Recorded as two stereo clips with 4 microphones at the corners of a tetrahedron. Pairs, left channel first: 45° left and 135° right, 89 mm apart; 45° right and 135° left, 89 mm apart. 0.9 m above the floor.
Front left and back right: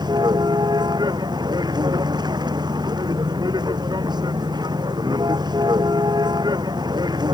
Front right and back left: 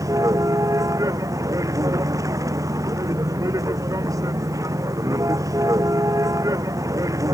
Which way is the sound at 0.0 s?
175° right.